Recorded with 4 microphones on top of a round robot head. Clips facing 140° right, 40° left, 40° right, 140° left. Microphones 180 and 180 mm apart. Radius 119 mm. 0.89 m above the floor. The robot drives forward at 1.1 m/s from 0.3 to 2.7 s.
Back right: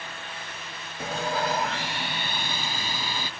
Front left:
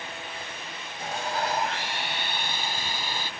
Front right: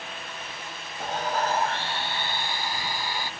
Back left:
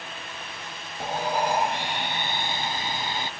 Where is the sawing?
140° right; by 3.3 s 150° right.